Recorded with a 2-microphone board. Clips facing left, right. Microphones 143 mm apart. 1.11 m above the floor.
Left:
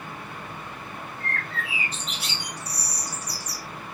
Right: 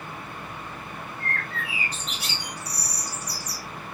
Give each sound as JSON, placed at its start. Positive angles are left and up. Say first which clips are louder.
{"t": 1.2, "sound": "a bird", "louder": "even", "side_deg": -40, "distance_m": 1.1}